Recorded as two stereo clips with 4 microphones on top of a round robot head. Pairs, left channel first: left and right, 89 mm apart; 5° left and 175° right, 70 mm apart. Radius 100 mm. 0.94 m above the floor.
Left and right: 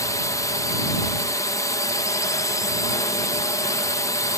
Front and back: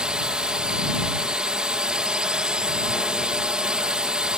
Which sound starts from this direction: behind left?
A drone, at 0.0 s.